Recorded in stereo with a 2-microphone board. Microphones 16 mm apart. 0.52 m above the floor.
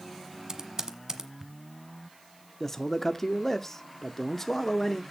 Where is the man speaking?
25° left (ahead or behind), 0.8 m.